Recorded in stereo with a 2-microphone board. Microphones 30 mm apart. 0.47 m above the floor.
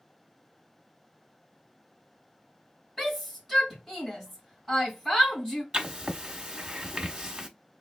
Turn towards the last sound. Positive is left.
turn(degrees=-25)  # may be behind; listen again after turning